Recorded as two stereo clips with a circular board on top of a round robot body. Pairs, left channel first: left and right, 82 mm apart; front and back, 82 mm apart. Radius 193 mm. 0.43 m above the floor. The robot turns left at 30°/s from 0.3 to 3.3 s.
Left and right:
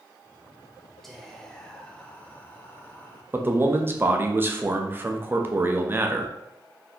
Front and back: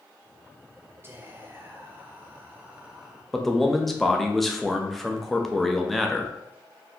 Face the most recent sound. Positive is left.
turn(degrees=-85)